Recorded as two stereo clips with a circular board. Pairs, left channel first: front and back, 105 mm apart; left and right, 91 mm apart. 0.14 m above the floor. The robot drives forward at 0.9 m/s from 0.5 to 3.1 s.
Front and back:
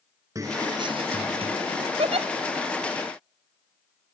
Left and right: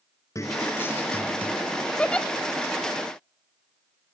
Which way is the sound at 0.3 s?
130° left.